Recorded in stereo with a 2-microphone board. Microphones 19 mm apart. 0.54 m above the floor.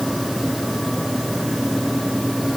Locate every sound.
Only background noise.